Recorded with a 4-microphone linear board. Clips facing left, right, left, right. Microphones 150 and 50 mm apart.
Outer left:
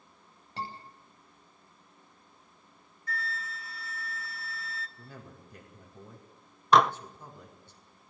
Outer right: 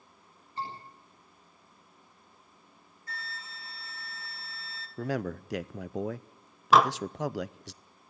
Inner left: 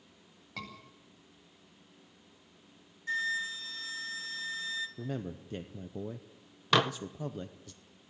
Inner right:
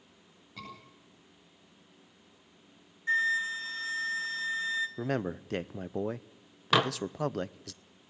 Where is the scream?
85° left, 10 m.